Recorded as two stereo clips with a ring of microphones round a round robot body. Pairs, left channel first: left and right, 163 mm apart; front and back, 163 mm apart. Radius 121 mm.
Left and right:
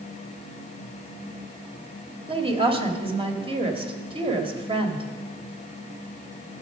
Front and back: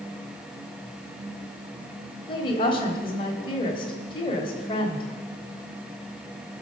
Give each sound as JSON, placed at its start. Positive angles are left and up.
{"t": 2.3, "sound": "a woman speaking", "azimuth_deg": -50, "distance_m": 1.4}